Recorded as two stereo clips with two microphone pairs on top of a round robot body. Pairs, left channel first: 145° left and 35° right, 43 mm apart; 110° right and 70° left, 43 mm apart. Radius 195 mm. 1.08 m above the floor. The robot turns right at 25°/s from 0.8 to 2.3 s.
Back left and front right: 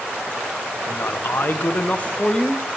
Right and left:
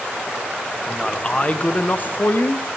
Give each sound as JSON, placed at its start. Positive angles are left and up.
{"t": 0.9, "sound": "a man speaking", "azimuth_deg": 175, "distance_m": 0.7}